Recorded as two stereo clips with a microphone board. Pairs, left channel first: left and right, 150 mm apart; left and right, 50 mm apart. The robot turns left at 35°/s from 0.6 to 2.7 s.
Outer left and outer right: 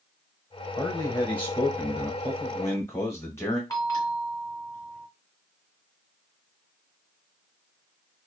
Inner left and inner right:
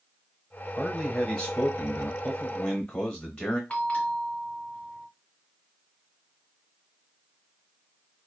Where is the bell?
25° left (ahead or behind), 0.7 m.